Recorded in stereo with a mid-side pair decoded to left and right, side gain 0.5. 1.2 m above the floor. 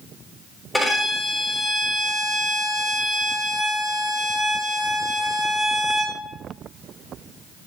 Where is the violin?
10° left, 5.5 m.